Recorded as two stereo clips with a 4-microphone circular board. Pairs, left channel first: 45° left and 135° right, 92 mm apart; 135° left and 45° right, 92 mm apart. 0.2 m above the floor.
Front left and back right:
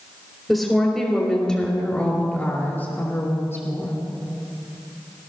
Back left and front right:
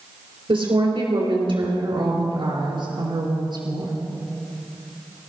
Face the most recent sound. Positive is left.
turn(degrees=-15)